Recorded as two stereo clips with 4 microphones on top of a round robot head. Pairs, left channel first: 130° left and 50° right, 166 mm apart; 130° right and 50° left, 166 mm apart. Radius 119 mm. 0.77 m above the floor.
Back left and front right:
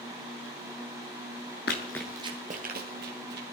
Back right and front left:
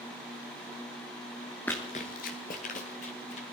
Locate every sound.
1.7 s running footsteps: 150° left, 0.9 m; by 3.4 s 80° right, 2.5 m